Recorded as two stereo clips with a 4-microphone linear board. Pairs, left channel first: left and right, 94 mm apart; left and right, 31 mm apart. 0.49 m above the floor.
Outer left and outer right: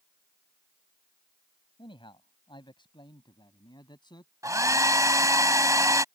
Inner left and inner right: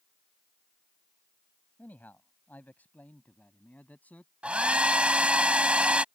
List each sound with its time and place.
1.8 s a man speaking: 65° left (ahead or behind); by 4.3 s 50° left (ahead or behind)
4.4 s a hair dryer: 35° right (ahead or behind)